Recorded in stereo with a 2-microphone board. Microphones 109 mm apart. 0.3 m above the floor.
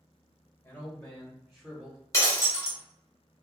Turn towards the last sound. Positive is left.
turn(degrees=30)  # may be behind; listen again after turning